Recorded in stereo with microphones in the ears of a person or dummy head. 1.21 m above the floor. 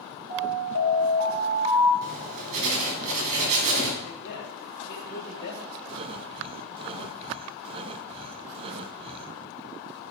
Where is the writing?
45° right (ahead or behind), 4 m.